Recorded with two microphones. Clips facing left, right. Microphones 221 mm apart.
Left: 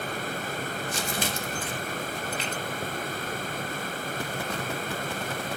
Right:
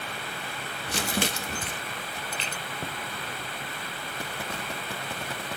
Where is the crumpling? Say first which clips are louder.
Right 7 dB; 70° right (ahead or behind), 1.6 m.